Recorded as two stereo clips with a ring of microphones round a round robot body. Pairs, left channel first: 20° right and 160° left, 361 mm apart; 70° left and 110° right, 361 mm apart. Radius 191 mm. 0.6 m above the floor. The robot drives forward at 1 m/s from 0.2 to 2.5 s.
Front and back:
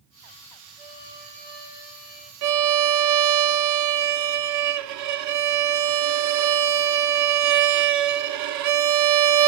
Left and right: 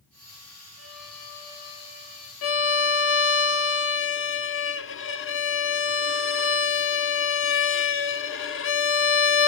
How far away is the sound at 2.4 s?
About 1.0 m.